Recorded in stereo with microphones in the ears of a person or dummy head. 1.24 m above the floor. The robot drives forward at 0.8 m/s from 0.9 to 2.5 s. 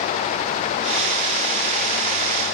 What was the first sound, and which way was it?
Only background noise.